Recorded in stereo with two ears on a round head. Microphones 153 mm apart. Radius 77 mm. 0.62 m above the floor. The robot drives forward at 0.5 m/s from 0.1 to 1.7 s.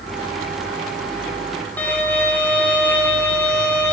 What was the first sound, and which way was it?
A violin, 10° left (ahead or behind).